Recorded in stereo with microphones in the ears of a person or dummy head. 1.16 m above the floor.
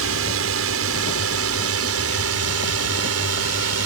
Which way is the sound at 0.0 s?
65° right (ahead or behind).